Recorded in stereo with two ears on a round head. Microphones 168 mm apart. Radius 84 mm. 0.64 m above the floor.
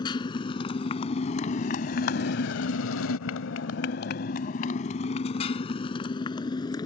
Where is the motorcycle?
25° left (ahead or behind); by 6.9 s 20° left (ahead or behind).